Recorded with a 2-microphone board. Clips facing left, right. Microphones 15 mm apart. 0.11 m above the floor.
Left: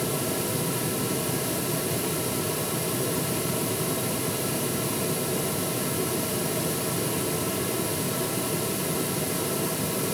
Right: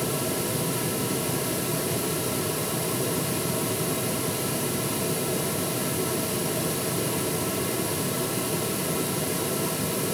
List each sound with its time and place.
Only background noise.